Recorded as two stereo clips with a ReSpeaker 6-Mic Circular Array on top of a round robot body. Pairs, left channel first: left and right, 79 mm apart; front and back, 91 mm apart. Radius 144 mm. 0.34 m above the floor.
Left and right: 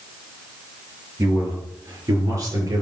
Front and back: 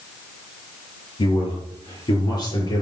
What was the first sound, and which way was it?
A man speaking, 35° right.